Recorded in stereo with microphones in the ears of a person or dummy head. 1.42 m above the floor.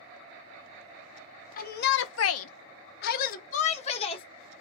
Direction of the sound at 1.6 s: 50° left (ahead or behind).